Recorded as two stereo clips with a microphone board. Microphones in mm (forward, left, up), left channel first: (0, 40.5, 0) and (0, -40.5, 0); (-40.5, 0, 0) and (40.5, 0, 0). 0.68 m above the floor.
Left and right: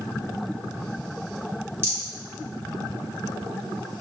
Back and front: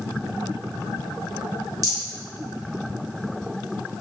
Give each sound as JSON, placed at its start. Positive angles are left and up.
{"t": 1.8, "sound": "a rattle", "azimuth_deg": -35, "distance_m": 1.5}